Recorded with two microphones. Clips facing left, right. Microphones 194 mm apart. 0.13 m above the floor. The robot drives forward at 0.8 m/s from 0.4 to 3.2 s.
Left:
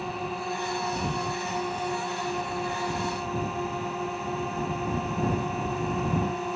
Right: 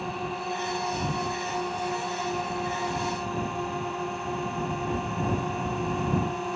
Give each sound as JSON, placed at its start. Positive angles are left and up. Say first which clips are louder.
{"t": 0.0, "sound": "a drone", "louder": "even", "side_deg": 0}